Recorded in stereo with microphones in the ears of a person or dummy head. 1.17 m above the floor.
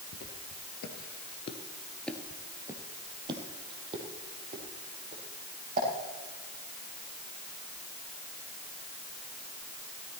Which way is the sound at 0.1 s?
55° left (ahead or behind).